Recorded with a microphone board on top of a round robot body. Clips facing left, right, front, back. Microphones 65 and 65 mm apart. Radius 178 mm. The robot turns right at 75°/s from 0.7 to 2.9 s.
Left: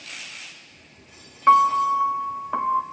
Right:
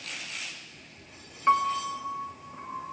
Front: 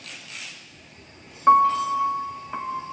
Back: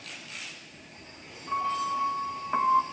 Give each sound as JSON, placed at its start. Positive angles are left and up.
{"t": 1.5, "sound": "a piano", "azimuth_deg": 25, "distance_m": 0.6}